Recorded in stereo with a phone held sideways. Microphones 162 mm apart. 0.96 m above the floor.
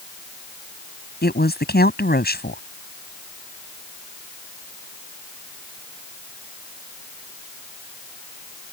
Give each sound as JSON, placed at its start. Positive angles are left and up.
{"t": 1.2, "sound": "a woman speaking", "side_deg": 75}